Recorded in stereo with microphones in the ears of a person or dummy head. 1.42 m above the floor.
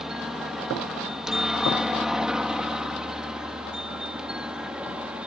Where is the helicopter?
5° right (ahead or behind).